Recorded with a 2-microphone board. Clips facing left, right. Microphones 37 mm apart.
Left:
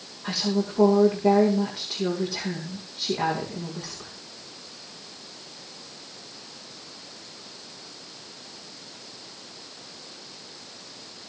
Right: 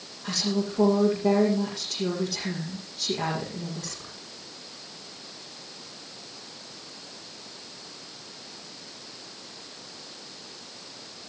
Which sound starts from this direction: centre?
A woman speaking, at 0.2 s.